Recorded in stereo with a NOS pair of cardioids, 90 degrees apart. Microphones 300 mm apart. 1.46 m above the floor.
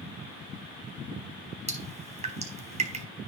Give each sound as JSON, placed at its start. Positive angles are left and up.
{"t": 1.7, "sound": "dripping", "azimuth_deg": -20, "distance_m": 4.0}